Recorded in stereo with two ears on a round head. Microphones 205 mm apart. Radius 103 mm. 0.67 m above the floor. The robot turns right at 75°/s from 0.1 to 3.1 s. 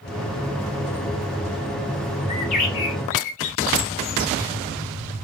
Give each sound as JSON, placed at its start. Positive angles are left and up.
{"t": 2.3, "sound": "a bird", "azimuth_deg": 20, "distance_m": 1.0}